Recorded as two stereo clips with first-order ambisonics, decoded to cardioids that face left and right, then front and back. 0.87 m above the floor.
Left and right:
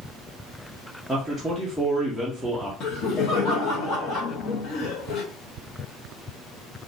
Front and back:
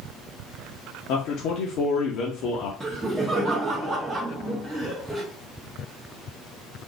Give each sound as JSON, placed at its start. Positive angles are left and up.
{"t": 1.1, "sound": "a man speaking", "azimuth_deg": 0, "distance_m": 0.7}
{"t": 2.8, "sound": "laughter", "azimuth_deg": 95, "distance_m": 0.8}